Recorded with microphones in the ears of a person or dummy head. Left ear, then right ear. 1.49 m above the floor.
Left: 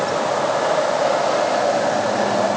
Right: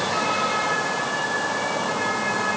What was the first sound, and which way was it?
Only background noise.